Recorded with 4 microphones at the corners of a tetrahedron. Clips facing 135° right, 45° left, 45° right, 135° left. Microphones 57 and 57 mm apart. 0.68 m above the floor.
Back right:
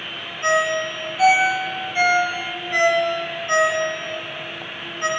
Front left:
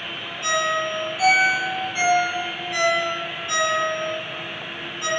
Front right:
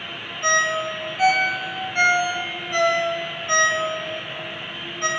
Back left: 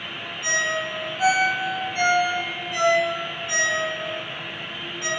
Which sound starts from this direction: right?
A ringtone, at 0.4 s.